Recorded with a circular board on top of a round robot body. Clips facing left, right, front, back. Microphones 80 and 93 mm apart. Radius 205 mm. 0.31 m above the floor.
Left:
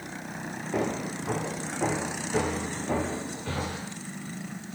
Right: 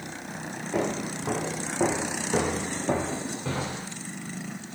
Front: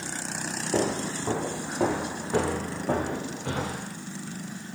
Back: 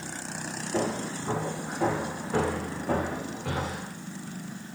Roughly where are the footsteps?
Ahead.